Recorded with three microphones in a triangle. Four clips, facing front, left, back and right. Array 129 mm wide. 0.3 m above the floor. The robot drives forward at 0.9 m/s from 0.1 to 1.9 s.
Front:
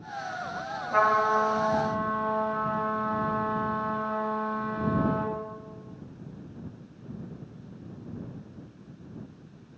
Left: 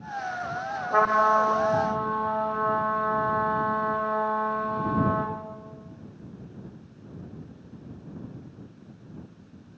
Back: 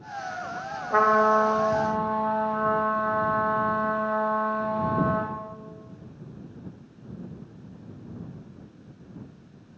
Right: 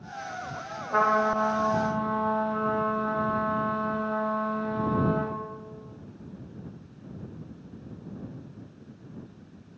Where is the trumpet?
155° left, 1.3 m; by 5.3 s 170° left, 2.0 m.